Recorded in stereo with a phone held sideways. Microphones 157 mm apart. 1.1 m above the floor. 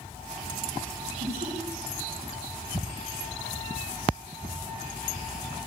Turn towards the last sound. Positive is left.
turn(degrees=-60)  # may be behind; listen again after turning